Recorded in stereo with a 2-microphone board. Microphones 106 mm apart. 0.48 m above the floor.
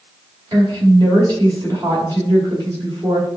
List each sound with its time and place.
0.5 s a woman speaking: 40° right (ahead or behind), 2.0 m